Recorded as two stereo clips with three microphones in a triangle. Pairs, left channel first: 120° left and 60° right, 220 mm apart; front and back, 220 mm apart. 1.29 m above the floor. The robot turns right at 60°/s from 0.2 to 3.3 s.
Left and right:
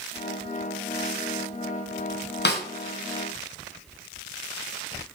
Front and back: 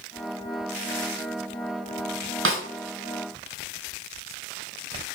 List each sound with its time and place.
2.5 s a snare drum: 160° left, 0.5 m; by 2.6 s 170° left, 0.5 m